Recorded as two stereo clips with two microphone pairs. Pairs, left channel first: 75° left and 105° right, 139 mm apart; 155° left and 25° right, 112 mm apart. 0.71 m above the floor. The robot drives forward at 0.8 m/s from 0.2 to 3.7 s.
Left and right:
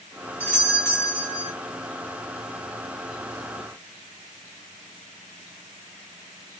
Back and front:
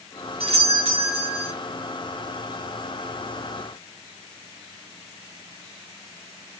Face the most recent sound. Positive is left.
turn(degrees=0)